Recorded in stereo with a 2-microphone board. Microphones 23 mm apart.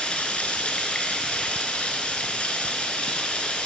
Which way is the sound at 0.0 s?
75° left (ahead or behind).